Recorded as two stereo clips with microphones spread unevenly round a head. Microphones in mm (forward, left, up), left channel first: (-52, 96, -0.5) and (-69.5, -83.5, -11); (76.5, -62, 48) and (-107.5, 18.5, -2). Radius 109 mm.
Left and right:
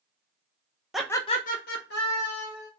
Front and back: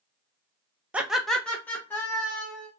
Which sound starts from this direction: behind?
Laughter, at 0.9 s.